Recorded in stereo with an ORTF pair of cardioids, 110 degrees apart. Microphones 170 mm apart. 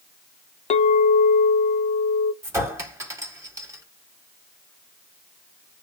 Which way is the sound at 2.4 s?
15° right.